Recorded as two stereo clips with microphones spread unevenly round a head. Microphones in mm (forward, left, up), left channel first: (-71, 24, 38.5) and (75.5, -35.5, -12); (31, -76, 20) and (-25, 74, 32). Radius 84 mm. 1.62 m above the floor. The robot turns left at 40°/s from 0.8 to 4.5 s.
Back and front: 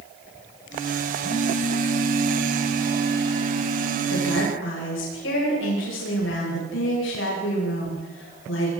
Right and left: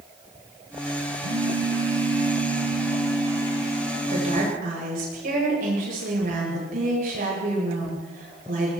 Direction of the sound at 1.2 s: 125° left.